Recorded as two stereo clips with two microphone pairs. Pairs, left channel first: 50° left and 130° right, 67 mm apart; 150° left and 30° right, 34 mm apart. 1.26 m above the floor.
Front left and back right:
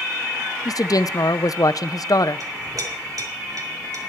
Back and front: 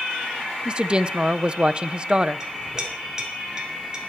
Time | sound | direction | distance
0.7 | a woman speaking | 30° left | 0.5 m
2.4 | a clink | 100° right | 4 m